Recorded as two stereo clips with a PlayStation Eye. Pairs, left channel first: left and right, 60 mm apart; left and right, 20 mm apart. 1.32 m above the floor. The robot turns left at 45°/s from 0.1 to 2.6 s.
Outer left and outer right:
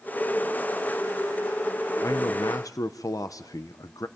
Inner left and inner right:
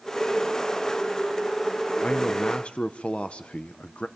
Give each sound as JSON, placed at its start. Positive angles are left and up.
{"t": 2.0, "sound": "a man speaking", "side_deg": 55, "distance_m": 1.0}